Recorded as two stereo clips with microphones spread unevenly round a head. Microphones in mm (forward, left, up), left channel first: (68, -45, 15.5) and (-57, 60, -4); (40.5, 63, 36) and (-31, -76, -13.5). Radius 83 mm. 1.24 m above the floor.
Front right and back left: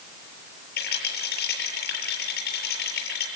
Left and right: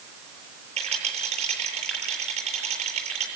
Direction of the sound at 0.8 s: 65° right.